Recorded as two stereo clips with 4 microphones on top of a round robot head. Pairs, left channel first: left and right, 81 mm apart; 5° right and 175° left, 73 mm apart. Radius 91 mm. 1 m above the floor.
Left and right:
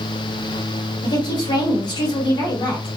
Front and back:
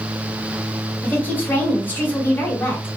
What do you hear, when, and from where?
1.0 s a woman speaking: 60° left, 2 m